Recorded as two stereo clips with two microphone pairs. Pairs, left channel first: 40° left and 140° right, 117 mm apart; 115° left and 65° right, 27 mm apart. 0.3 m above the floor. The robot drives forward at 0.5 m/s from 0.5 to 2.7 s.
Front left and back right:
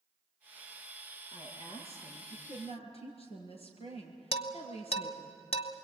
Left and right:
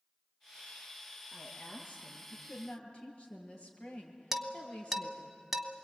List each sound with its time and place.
1.3 s a woman speaking: 65° left, 6.5 m; by 5.3 s 70° left, 6 m
4.3 s dishes clattering: 20° left, 1.4 m